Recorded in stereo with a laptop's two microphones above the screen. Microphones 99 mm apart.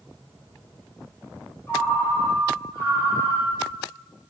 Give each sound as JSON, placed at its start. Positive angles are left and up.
{"t": 1.7, "sound": "a ringtone", "side_deg": 30, "distance_m": 0.8}